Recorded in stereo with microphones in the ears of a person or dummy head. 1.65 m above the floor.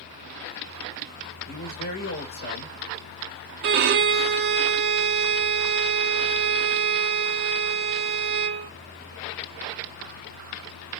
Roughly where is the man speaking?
Left.